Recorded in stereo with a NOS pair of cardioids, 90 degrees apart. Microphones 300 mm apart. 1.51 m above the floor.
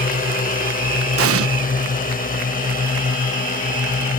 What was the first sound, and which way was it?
A drone, 30° left.